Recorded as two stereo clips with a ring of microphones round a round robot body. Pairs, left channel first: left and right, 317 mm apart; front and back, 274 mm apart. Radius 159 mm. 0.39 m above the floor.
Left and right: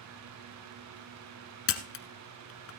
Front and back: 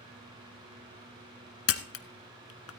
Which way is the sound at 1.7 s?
40° left.